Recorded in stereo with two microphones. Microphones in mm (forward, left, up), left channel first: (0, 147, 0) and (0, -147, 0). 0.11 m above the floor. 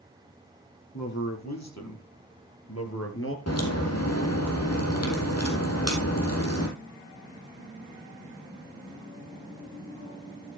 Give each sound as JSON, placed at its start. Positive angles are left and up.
{"t": 0.9, "sound": "a man speaking", "side_deg": 70, "distance_m": 4.0}
{"t": 3.5, "sound": "a crack", "side_deg": 55, "distance_m": 3.0}